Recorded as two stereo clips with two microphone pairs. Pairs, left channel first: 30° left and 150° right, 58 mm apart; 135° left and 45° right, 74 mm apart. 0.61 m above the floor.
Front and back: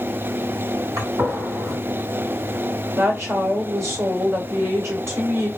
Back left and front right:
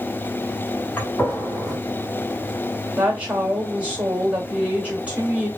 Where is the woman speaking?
115° right, 1.6 m.